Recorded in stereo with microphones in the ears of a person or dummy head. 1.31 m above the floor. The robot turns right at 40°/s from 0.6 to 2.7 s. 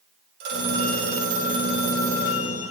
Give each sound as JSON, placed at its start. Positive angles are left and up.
{"t": 0.4, "sound": "a phone ringing", "azimuth_deg": -75, "distance_m": 3.5}